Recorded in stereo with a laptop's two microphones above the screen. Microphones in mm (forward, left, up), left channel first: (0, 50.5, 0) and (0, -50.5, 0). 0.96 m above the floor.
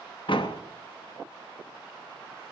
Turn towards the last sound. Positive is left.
turn(degrees=60)  # may be behind; listen again after turning